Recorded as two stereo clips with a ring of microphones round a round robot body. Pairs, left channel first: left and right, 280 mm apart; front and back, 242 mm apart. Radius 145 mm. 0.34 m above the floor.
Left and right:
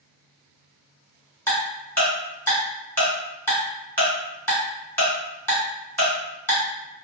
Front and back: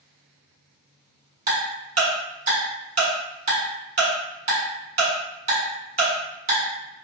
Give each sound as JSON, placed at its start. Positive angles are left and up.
{"t": 1.5, "sound": "ticking", "azimuth_deg": 165, "distance_m": 1.6}